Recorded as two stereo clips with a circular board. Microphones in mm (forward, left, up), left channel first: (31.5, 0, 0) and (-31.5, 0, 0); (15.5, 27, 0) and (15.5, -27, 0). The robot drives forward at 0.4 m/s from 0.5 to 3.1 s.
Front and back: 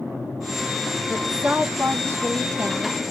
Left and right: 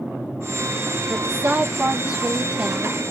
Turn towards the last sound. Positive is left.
turn(degrees=-165)